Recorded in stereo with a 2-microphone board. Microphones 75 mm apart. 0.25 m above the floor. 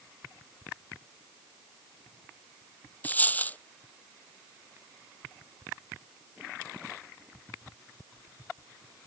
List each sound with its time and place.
3.0 s a dropped coin: 20° left (ahead or behind)